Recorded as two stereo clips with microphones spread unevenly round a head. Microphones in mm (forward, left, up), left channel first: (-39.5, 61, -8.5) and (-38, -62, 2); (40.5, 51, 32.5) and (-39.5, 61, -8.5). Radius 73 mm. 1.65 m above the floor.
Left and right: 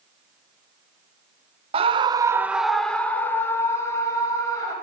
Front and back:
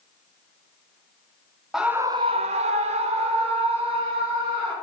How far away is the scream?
About 0.7 m.